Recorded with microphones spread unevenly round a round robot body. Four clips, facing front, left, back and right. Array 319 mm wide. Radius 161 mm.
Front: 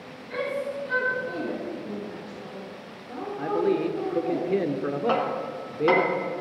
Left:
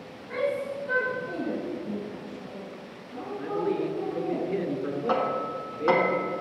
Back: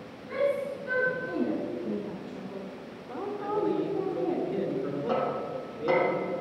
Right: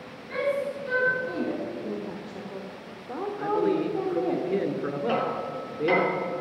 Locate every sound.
0.3 s a shout: 135° right, 6.5 m; by 1.5 s 140° right, 6 m
1.8 s a woman speaking: 110° right, 1.7 m
3.4 s a man speaking: 10° right, 1.6 m
5.1 s hammering: 40° left, 3 m